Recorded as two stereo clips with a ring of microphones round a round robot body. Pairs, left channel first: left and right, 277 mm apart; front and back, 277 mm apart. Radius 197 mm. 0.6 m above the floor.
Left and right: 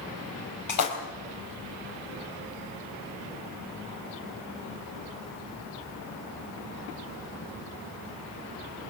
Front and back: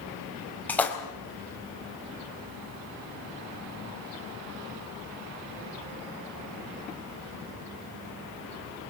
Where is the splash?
85° left, 4 m.